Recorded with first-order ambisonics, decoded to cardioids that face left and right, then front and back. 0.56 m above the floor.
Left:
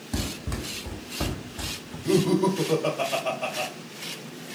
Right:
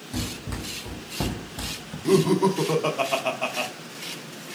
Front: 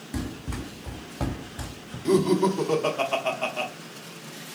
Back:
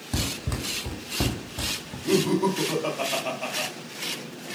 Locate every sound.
0.1 s running footsteps: 165° left, 1.2 m; by 1.9 s 135° right, 1.1 m
2.0 s laughter: 65° right, 0.7 m